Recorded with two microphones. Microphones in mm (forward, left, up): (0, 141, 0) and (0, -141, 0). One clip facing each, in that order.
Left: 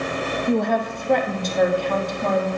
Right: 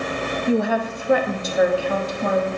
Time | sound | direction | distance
0.5 | a woman speaking | 5° right (ahead or behind) | 0.6 m